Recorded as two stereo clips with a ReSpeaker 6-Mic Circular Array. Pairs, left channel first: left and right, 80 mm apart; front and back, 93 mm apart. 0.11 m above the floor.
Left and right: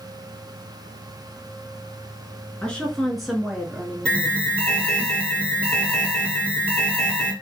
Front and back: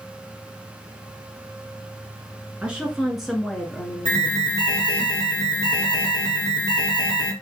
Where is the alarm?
25° left, 2.5 m.